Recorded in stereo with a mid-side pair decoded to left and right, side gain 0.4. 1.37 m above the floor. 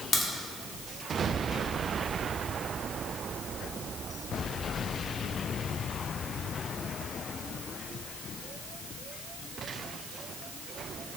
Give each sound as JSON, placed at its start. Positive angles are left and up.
{"t": 0.1, "sound": "a crack", "azimuth_deg": 60, "distance_m": 0.7}